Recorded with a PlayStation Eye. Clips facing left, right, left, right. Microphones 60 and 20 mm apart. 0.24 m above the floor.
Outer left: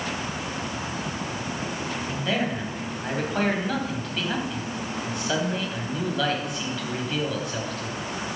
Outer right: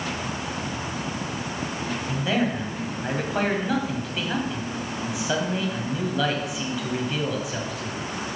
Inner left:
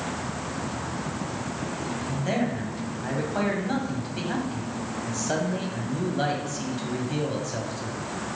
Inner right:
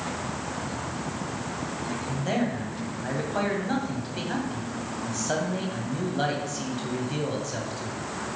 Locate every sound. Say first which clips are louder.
2.1 s a man speaking: outer right 3 dB, even; 5° right (ahead or behind), 1.6 m